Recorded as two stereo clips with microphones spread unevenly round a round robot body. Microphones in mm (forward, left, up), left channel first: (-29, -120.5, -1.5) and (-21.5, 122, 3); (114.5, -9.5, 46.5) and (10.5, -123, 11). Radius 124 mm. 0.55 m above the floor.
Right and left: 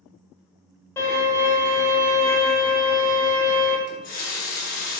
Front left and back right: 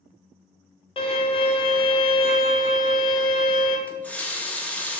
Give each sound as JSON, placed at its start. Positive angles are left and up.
{"t": 1.0, "sound": "a violin", "azimuth_deg": -10, "distance_m": 0.6}
{"t": 3.9, "sound": "a running tap", "azimuth_deg": -40, "distance_m": 0.6}